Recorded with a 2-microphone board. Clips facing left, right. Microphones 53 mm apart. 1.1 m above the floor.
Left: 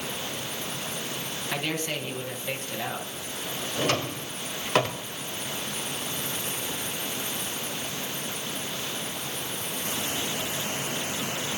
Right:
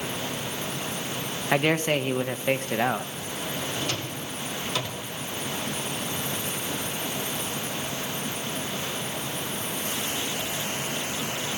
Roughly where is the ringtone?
I don't hear a ringtone.